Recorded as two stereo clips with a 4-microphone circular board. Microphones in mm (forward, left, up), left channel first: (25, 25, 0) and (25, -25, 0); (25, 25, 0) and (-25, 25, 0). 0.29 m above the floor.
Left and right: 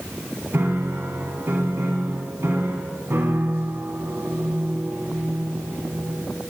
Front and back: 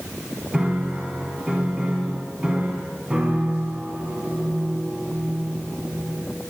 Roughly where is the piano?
Right.